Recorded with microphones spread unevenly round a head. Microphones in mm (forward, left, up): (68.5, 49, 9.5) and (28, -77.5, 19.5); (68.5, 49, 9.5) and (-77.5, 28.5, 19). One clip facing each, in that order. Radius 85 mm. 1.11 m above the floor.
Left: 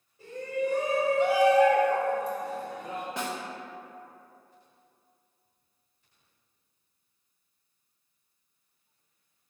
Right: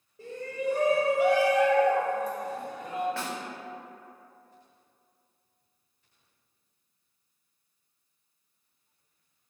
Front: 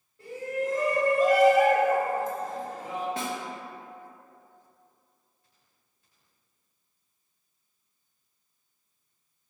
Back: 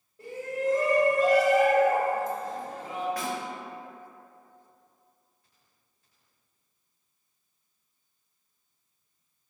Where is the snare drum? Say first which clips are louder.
Left 1 dB, even; 25° left, 0.7 m.